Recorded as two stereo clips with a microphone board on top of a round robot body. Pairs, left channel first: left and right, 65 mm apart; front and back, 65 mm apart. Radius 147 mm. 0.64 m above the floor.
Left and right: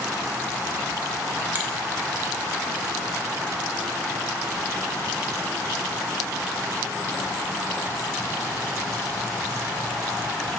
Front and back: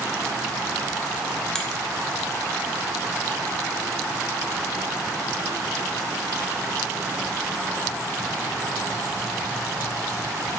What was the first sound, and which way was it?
A finger snap, 70° right.